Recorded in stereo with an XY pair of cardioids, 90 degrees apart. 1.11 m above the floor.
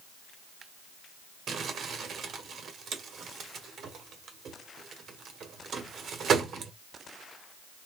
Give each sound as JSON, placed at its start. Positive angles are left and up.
{"t": 1.5, "sound": "crumpling", "azimuth_deg": -65, "distance_m": 1.7}